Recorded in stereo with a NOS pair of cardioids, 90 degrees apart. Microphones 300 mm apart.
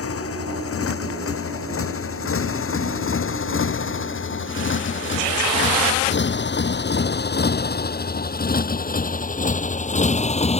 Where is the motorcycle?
50° left; by 10.6 s 20° left.